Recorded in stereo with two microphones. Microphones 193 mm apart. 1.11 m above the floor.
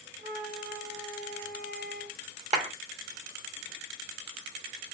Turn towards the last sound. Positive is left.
turn(degrees=-35)  # may be behind; listen again after turning